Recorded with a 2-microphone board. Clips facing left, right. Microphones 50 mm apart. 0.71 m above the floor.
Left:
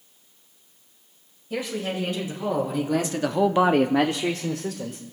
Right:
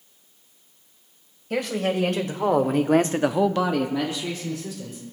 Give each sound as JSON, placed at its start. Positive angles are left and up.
{"t": 1.5, "sound": "a man speaking", "side_deg": -70, "distance_m": 3.0}